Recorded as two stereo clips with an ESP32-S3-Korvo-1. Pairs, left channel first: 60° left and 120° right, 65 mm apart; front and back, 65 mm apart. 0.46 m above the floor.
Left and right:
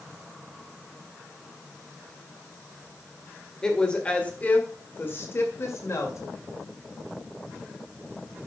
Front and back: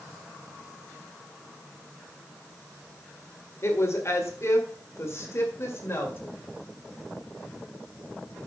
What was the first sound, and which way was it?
A woman speaking, 15° right.